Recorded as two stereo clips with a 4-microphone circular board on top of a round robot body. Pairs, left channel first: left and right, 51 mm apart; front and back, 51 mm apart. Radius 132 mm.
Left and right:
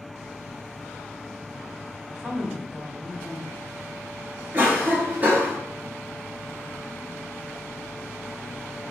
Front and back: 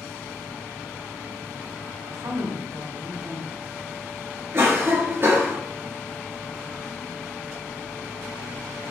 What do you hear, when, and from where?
2.1 s a woman speaking: 165° right, 1.5 m
4.5 s a cough: 145° right, 1.9 m